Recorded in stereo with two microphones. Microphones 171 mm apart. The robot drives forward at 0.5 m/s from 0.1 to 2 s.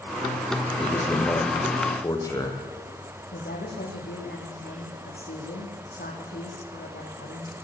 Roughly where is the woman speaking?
Left.